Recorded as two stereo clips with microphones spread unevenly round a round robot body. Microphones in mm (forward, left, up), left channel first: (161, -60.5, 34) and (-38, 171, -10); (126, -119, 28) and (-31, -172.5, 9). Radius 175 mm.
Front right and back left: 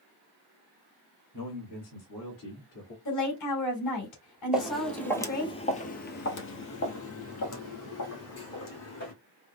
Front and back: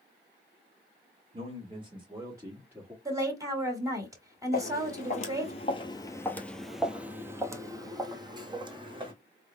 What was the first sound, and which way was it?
A man speaking, 115° right.